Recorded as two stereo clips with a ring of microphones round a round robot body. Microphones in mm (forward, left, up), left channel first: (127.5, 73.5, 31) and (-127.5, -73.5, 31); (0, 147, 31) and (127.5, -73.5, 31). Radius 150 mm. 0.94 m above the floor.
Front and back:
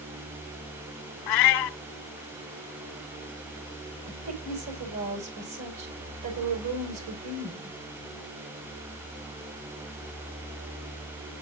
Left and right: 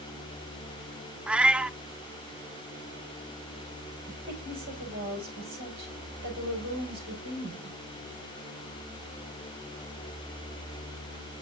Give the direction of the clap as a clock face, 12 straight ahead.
No clap in this recording.